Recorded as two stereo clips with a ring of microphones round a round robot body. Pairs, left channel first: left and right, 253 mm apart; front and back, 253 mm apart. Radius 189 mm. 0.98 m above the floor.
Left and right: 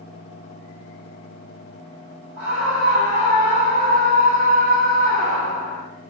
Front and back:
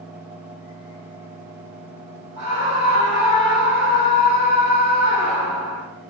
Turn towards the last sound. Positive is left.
turn(degrees=-150)